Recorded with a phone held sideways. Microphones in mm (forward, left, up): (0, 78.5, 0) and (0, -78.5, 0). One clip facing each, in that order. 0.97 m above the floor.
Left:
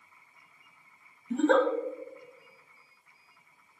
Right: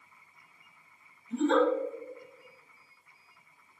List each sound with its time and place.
1.3 s a giggle: 65° left (ahead or behind), 0.5 m